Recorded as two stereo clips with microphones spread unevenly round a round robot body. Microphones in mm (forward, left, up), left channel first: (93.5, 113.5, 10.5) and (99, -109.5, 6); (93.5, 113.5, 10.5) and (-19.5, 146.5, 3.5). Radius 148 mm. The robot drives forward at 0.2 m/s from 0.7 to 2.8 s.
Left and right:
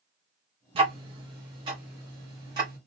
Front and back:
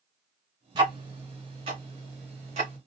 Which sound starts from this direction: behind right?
Ticking, at 0.8 s.